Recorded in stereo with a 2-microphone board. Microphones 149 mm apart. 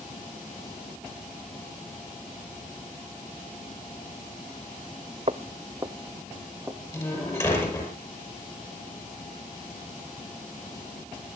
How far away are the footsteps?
About 0.8 m.